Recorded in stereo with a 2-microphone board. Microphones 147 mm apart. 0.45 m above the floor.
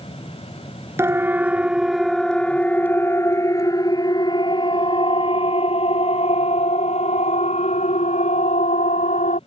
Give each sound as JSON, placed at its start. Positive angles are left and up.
{"t": 1.0, "sound": "a siren", "side_deg": -15}